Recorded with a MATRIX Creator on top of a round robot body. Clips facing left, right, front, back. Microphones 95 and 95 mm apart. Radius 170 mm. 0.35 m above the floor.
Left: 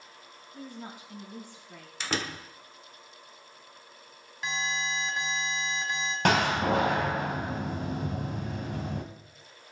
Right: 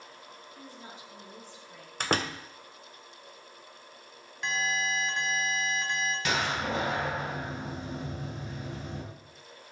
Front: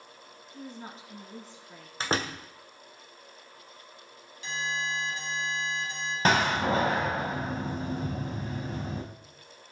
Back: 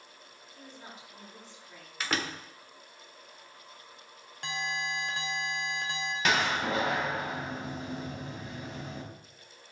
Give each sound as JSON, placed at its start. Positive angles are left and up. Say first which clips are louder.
{"t": 0.5, "sound": "a woman speaking", "louder": "left 7 dB, front 6 dB", "azimuth_deg": 55, "distance_m": 5.5}
{"t": 2.0, "sound": "a door slam", "louder": "right 4 dB, front 3 dB", "azimuth_deg": -55, "distance_m": 2.0}
{"t": 4.4, "sound": "an alarm", "louder": "right 2 dB, front 2 dB", "azimuth_deg": 175, "distance_m": 2.5}
{"t": 6.2, "sound": "a door slam", "louder": "left 8 dB, front 4 dB", "azimuth_deg": 55, "distance_m": 2.5}